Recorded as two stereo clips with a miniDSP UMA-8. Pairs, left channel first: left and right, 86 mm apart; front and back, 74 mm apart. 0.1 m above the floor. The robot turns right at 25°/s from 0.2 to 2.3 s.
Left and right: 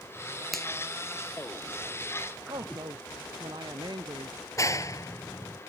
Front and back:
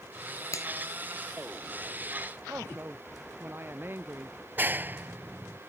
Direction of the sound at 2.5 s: 120° right.